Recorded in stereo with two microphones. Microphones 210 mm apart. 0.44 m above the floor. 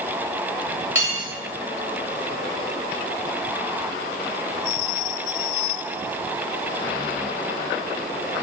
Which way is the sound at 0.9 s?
60° left (ahead or behind).